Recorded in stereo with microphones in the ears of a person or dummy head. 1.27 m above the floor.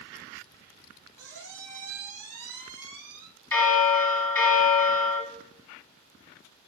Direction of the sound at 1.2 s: 20° right (ahead or behind).